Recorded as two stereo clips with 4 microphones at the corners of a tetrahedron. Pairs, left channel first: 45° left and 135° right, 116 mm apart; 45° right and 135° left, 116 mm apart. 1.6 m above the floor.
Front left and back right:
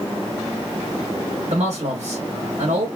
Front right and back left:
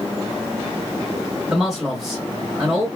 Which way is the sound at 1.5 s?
140° right.